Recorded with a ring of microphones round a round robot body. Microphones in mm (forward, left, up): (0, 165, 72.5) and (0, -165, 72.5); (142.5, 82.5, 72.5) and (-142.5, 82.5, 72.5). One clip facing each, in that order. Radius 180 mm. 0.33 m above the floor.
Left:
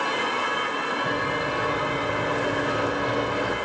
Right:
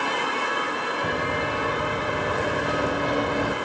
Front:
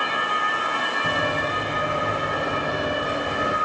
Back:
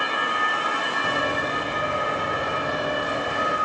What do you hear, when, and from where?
1.0 s running footsteps: 85° right, 3.5 m; by 3.6 s 75° right, 1.9 m